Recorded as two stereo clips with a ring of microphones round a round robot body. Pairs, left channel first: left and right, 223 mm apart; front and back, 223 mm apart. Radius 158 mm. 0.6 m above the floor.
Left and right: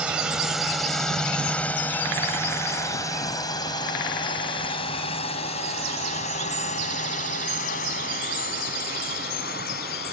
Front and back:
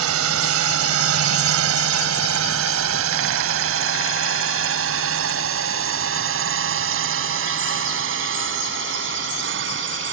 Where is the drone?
175° right; by 10.1 s 150° left.